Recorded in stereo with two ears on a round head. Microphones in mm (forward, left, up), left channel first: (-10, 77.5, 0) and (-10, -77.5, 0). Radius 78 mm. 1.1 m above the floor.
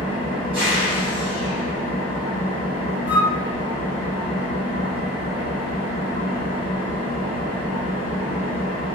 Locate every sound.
0.0 s an engine running: 85° right, 1.6 m
3.1 s a flute: 10° right (ahead or behind), 0.7 m